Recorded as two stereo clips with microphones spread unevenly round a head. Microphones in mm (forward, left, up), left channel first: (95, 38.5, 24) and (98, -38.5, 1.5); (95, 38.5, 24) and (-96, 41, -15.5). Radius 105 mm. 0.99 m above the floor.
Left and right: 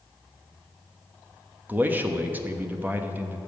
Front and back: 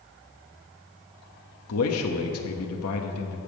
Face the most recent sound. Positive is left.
turn(degrees=-25)